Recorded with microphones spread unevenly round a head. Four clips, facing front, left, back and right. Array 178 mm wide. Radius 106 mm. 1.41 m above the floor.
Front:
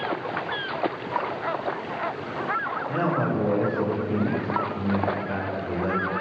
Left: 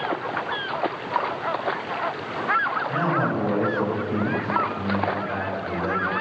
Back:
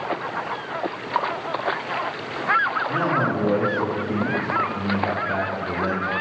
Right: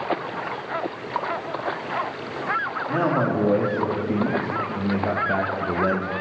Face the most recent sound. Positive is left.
turn(degrees=-120)